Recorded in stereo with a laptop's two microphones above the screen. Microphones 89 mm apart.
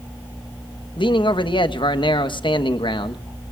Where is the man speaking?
65° left (ahead or behind), 1.2 m.